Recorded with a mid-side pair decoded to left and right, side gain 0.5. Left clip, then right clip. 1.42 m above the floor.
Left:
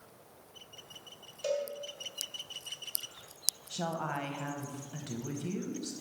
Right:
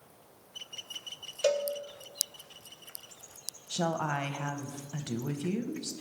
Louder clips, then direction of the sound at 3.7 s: Right 8 dB; 35° right.